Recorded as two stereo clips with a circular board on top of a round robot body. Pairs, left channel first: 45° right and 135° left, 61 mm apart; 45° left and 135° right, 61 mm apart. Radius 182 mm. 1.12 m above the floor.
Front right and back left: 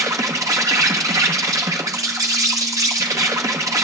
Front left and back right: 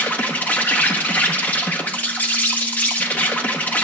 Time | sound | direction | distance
0.0 | an insect | 110° left | 0.9 m